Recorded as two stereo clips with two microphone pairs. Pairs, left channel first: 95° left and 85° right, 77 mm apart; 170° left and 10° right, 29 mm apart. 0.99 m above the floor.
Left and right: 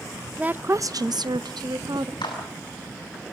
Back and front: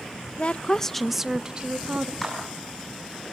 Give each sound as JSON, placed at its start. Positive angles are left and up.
{"t": 0.4, "sound": "a woman speaking", "azimuth_deg": -155, "distance_m": 0.6}
{"t": 2.2, "sound": "a clap", "azimuth_deg": 85, "distance_m": 8.5}